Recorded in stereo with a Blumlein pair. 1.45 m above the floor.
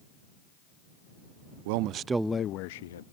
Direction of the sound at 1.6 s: 50° right.